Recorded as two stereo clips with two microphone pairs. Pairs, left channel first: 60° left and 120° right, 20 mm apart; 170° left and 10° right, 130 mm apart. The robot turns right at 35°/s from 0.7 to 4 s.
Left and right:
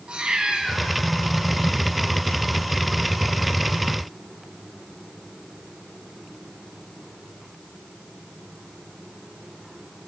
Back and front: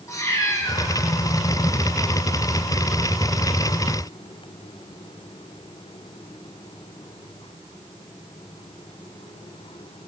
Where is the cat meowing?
130° right, 1.0 m; by 0.8 s 125° right, 1.0 m.